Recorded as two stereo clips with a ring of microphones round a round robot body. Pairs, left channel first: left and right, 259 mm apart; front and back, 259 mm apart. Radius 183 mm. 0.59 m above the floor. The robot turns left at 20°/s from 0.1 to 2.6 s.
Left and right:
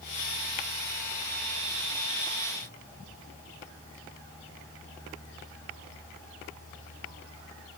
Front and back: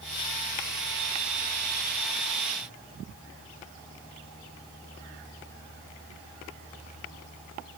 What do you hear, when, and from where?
Only background noise.